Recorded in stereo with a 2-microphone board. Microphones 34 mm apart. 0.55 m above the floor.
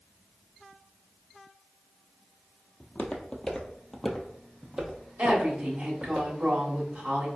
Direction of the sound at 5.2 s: 45° right (ahead or behind).